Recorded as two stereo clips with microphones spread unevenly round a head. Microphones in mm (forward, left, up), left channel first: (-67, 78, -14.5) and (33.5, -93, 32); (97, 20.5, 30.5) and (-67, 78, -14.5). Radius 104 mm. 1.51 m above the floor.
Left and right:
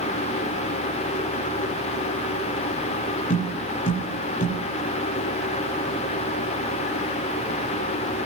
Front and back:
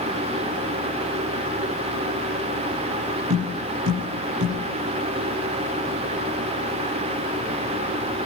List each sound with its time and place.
3.3 s tapping: 175° left, 8.5 m